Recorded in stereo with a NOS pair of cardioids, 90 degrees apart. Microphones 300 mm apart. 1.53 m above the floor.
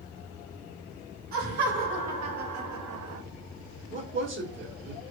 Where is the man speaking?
40° right, 1.1 m.